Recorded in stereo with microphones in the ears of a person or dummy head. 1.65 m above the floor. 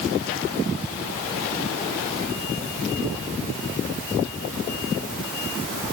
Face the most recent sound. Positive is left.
No sound to turn to.